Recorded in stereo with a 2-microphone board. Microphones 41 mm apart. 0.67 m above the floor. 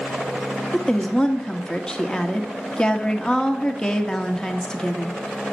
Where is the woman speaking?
15° left (ahead or behind), 1.3 m.